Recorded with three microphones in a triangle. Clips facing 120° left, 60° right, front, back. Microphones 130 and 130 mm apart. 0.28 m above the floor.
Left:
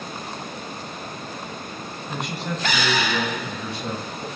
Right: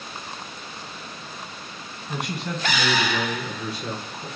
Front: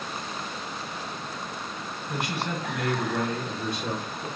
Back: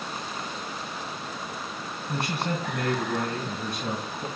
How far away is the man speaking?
About 1.2 m.